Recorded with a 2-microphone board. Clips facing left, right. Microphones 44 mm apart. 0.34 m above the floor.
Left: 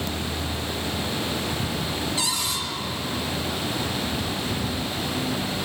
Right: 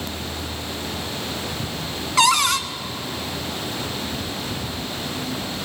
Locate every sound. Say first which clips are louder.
2.2 s a cupboard door: right 10 dB; 75° right (ahead or behind), 1.1 m